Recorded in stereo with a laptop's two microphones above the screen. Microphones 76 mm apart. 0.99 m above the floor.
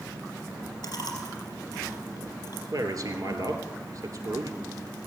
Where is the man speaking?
50° right (ahead or behind), 3 m.